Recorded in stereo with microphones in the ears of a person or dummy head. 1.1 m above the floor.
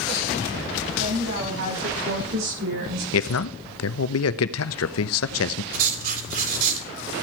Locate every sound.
1.0 s a woman speaking: 80° right, 10 m; by 3.0 s 75° right (ahead or behind), 9 m
3.1 s a man speaking: 75° left (ahead or behind), 1.1 m
5.7 s writing: 55° right (ahead or behind), 4 m